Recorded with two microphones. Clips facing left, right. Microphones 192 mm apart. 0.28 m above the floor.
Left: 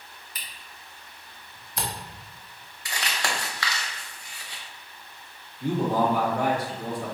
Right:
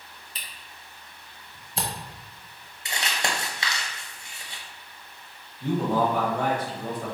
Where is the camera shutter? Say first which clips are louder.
Even; 30° right (ahead or behind), 0.9 m.